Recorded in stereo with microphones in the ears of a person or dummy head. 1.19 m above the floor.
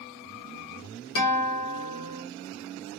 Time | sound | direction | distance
1.1 | a guitar | 75° left (ahead or behind) | 1.0 m